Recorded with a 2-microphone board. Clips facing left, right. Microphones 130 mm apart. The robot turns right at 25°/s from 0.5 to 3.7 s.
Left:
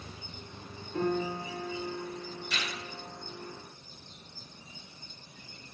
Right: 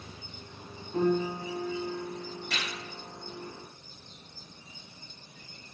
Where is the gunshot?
70° right (ahead or behind), 4 m; by 2.7 s 65° right (ahead or behind), 4 m.